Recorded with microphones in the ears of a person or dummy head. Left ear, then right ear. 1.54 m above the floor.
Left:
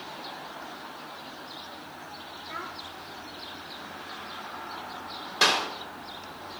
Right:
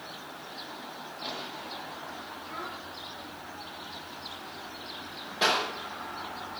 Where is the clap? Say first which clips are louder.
Left 3 dB; 70° left (ahead or behind), 4 m.